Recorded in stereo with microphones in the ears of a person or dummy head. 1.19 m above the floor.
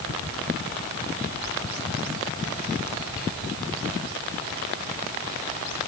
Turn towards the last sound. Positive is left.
No sound to turn to.